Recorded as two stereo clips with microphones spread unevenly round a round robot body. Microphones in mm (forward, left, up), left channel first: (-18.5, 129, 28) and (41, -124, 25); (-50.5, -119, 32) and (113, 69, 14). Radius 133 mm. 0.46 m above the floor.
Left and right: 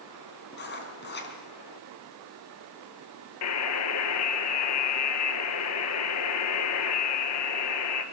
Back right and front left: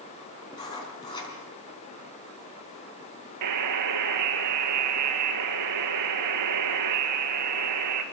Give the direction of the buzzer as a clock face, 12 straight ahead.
10 o'clock.